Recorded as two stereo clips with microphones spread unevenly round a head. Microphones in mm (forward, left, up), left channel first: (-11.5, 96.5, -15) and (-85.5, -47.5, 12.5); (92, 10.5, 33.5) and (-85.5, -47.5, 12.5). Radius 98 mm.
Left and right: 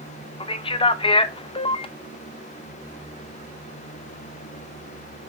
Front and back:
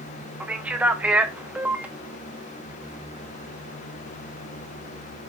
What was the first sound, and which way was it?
A man speaking, 115° left.